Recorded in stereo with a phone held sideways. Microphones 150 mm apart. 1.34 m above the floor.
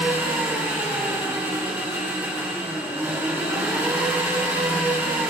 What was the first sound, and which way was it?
An engine running, 15° right (ahead or behind).